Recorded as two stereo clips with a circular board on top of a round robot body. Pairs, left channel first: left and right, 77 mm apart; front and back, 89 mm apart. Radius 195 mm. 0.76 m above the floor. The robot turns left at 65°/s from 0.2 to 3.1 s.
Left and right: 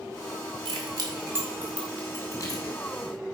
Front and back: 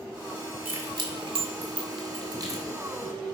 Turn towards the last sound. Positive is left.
turn(degrees=90)